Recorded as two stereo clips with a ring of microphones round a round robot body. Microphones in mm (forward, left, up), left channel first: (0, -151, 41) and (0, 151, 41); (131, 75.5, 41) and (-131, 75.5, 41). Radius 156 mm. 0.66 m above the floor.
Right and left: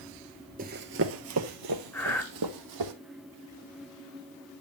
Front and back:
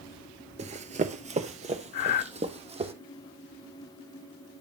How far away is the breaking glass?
No breaking glass in this recording.